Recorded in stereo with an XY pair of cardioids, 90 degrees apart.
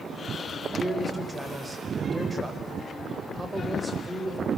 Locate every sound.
0.8 s a man speaking: 20° right, 9 m